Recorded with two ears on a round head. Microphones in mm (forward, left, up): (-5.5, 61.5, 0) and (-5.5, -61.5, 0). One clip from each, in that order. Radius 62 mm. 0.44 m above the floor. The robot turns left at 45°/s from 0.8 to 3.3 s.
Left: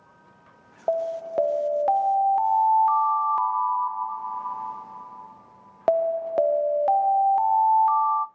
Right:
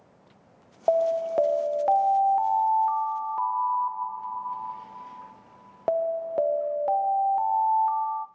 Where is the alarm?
145° right, 0.5 m; by 8.3 s 105° left, 0.5 m.